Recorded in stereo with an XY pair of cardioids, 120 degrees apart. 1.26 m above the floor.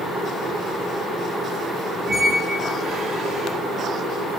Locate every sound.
2.1 s a squeak: 55° right, 1.6 m